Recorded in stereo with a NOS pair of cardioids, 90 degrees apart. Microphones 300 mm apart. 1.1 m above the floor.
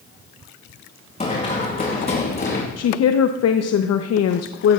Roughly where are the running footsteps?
Ahead.